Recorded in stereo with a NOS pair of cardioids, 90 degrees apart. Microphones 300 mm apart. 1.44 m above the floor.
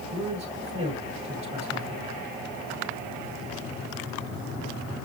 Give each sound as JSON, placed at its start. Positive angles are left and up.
{"t": 0.1, "sound": "a man speaking", "azimuth_deg": -20, "distance_m": 7.0}